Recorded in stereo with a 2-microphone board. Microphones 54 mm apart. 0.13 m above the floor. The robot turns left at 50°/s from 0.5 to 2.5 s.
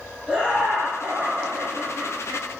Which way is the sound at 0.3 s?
20° right.